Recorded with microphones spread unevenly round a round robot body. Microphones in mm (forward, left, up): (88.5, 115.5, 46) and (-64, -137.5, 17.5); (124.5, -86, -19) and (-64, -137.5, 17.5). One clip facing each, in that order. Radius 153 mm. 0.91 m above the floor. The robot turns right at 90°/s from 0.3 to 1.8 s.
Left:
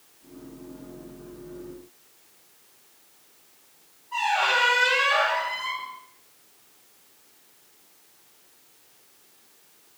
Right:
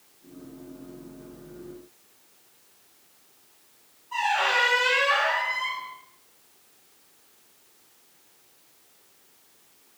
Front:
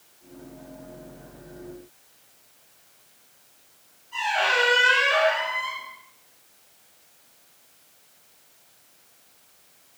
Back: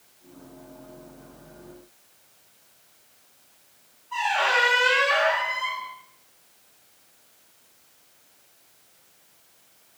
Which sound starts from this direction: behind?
A squeak, at 4.1 s.